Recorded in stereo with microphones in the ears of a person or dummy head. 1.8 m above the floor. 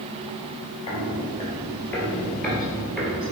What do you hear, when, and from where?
0.9 s footsteps: 25° left (ahead or behind), 2 m; by 3.3 s 10° right (ahead or behind), 2 m